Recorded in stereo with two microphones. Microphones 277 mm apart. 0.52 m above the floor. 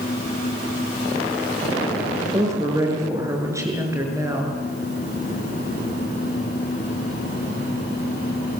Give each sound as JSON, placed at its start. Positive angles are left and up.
{"t": 2.3, "sound": "a woman speaking", "side_deg": -10, "distance_m": 6.5}